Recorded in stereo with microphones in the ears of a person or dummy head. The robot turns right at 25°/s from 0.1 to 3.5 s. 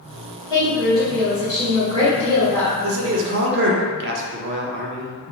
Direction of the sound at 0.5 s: 160° left.